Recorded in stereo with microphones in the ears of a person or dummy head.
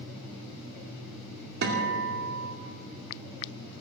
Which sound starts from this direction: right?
A guitar, at 1.6 s.